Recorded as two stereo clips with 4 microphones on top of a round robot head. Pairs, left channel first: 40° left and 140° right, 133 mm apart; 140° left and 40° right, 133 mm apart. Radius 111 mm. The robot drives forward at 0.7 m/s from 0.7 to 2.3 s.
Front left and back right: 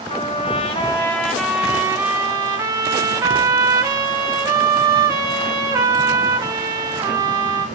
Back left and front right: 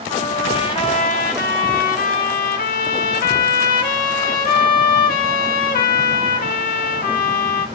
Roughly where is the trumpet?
Left.